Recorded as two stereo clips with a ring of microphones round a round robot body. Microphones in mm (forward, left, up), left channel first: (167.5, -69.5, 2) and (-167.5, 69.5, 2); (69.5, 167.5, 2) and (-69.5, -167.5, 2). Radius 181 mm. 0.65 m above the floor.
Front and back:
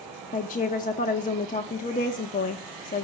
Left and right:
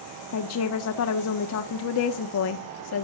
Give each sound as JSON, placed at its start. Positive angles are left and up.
{"t": 0.3, "sound": "a woman speaking", "azimuth_deg": 40, "distance_m": 1.1}